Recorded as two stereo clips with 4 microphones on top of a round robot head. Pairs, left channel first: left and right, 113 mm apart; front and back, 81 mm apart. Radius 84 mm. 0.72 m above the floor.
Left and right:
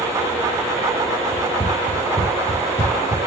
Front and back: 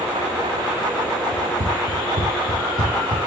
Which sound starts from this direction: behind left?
Running footsteps, at 1.3 s.